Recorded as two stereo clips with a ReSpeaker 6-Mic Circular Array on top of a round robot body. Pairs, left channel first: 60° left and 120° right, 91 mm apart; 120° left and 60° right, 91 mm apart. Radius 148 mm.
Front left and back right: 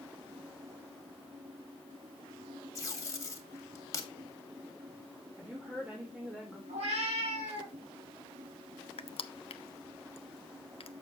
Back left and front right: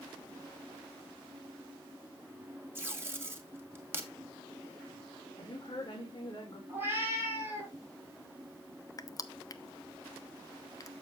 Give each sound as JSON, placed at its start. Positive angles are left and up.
{"t": 2.8, "sound": "tape being pulled", "azimuth_deg": 5, "distance_m": 1.7}
{"t": 5.4, "sound": "a woman speaking", "azimuth_deg": 160, "distance_m": 2.0}
{"t": 6.7, "sound": "a cat meowing", "azimuth_deg": -130, "distance_m": 4.0}
{"t": 9.0, "sound": "crushing", "azimuth_deg": 70, "distance_m": 0.7}